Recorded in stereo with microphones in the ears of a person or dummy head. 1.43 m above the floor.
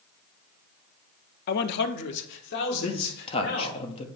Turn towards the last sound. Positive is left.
turn(degrees=30)  # may be behind; listen again after turning